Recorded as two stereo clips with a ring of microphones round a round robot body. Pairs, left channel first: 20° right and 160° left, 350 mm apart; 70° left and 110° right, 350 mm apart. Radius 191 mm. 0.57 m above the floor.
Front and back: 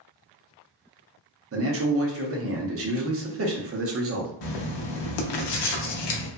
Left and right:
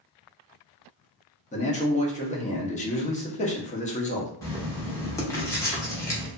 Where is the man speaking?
130° left, 0.8 m.